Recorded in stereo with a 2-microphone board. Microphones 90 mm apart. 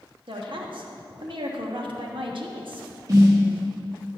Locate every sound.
0.3 s a woman speaking: 70° right (ahead or behind), 1.1 m
3.1 s a snare drum: 45° right (ahead or behind), 2.5 m